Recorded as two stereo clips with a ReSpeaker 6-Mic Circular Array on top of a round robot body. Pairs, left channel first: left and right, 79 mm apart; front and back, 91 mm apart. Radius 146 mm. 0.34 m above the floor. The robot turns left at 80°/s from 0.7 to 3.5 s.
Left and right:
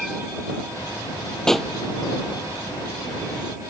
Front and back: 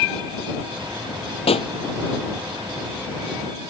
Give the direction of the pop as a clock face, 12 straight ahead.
12 o'clock.